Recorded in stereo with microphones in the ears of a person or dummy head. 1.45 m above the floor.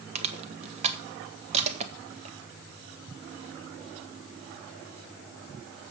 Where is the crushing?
40° right (ahead or behind), 1.4 m.